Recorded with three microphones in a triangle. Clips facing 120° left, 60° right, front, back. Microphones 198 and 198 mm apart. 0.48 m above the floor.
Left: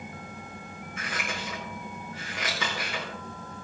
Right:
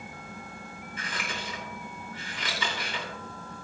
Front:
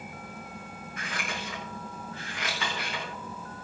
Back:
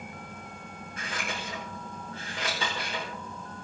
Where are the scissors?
120° left, 6.5 m.